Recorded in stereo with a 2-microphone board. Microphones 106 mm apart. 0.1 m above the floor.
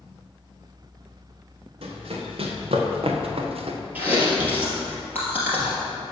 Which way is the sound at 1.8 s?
65° right (ahead or behind).